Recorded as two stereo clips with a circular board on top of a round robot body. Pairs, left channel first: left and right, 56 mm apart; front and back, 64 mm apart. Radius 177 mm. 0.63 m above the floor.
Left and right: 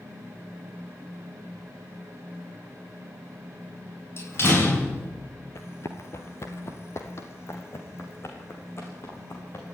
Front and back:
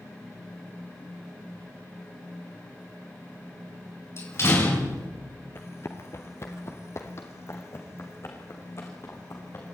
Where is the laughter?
No laughter in this recording.